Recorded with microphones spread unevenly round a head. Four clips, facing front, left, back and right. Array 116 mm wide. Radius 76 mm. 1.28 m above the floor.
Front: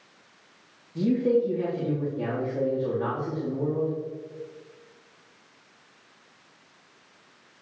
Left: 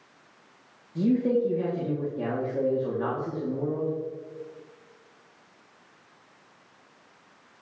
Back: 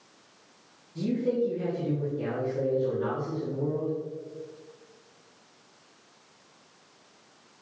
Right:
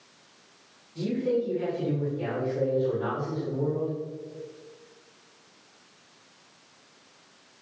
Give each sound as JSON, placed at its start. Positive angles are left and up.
{"t": 0.9, "sound": "a man speaking", "azimuth_deg": 70, "distance_m": 2.5}